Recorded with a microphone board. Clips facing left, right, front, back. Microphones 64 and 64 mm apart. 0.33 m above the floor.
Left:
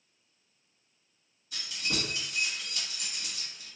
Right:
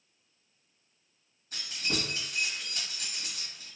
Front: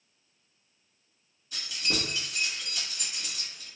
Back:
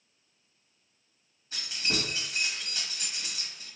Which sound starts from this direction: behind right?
Keys jangling, at 1.5 s.